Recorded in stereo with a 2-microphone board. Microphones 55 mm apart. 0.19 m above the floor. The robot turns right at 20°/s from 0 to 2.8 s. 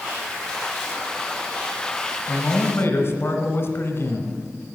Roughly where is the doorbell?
No doorbell in this recording.